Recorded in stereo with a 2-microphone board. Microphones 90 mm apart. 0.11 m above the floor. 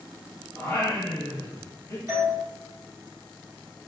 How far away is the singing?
About 1.1 m.